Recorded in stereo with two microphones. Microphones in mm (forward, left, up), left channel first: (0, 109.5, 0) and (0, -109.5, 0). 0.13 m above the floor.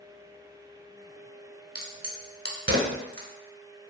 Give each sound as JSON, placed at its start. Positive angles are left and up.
{"t": 1.8, "sound": "a crack", "side_deg": -45, "distance_m": 0.5}